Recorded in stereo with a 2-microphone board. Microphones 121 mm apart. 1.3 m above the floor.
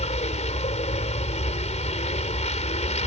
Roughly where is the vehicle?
Left.